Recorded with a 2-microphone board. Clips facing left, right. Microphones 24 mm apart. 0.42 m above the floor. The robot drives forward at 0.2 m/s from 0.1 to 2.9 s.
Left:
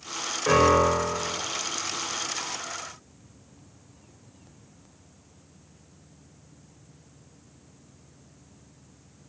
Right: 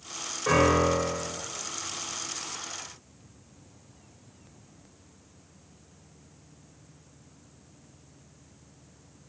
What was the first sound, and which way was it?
A piano, 10° left (ahead or behind).